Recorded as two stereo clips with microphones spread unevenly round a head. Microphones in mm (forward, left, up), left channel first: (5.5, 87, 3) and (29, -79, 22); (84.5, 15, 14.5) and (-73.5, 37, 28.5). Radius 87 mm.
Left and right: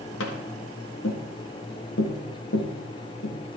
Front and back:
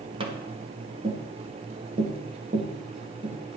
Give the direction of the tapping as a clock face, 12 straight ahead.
8 o'clock.